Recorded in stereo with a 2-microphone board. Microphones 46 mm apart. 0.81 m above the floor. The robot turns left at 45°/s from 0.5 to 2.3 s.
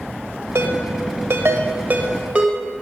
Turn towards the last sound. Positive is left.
turn(degrees=-25)  # may be behind; listen again after turning